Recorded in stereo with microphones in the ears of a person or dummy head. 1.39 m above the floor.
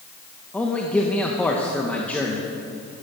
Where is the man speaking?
10° left (ahead or behind), 0.9 m.